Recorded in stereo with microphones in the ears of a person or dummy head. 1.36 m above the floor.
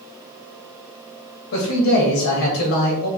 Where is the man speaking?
65° left (ahead or behind), 1.1 m.